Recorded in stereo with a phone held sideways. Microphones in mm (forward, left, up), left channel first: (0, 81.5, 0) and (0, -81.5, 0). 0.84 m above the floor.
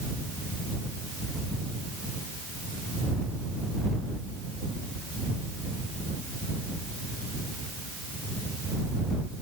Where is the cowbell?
I don't hear a cowbell.